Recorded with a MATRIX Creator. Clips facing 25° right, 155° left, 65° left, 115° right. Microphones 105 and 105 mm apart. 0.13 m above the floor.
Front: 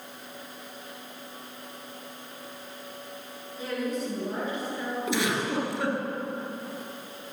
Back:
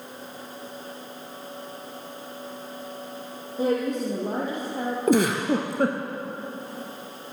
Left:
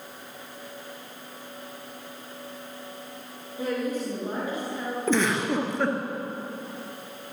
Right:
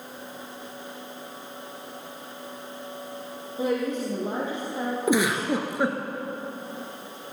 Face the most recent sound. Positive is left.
turn(degrees=170)